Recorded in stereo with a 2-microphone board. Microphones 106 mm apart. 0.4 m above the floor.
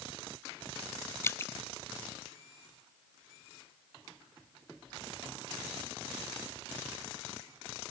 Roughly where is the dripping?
Left.